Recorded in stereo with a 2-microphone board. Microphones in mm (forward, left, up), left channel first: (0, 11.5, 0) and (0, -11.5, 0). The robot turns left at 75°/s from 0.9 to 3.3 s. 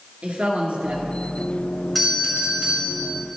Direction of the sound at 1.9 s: Straight ahead.